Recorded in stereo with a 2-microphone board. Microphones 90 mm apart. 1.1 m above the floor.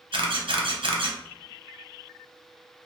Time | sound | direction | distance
0.1 | a camera shutter | 70° right (ahead or behind) | 0.6 m